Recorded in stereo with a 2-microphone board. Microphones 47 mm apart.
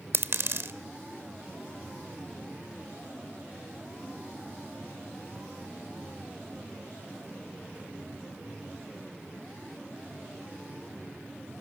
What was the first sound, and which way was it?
A dropped coin, 60° right (ahead or behind).